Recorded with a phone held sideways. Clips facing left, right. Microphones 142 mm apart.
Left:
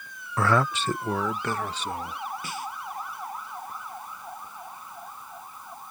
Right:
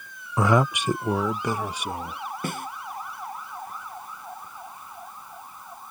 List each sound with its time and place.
0.4 s a man speaking: 15° right (ahead or behind)
2.4 s a snare drum: 55° right (ahead or behind)